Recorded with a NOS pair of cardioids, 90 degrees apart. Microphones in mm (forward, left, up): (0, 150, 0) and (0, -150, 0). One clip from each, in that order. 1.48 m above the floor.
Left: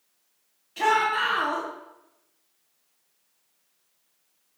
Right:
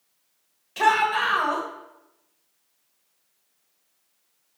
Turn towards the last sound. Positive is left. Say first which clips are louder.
# right 2 dB
turn(degrees=-35)